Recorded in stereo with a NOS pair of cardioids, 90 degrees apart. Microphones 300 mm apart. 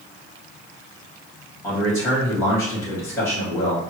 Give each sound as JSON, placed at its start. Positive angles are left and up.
{"t": 1.6, "sound": "a man speaking", "azimuth_deg": 10, "distance_m": 1.6}